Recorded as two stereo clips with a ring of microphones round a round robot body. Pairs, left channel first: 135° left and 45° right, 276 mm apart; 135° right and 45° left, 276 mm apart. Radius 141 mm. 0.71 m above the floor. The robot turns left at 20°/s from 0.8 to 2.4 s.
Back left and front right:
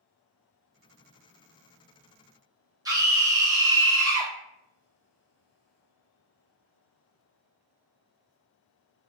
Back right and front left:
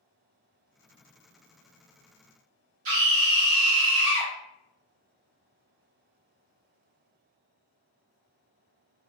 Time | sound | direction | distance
2.9 | a scream | 30° left | 1.4 m